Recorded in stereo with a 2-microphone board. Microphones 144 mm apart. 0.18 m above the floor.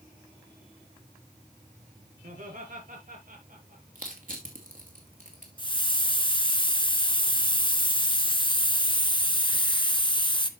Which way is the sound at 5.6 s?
35° left (ahead or behind).